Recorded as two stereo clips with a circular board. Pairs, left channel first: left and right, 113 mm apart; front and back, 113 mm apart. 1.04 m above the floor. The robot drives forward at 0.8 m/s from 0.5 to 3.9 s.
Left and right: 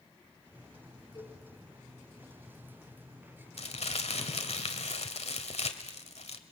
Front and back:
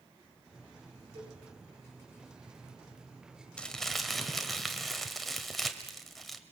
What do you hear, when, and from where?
1.1 s a cowbell: 140° left, 7 m
3.6 s crumpling: 80° left, 1.9 m; by 6.4 s 90° left, 1.9 m